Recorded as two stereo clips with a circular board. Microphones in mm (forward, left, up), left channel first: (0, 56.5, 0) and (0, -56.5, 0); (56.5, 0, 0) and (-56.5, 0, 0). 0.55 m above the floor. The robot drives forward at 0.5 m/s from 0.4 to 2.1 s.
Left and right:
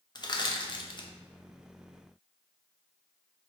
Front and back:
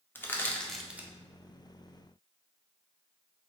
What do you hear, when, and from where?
0.1 s crushing: 65° left, 0.5 m; by 1.1 s 115° left, 0.5 m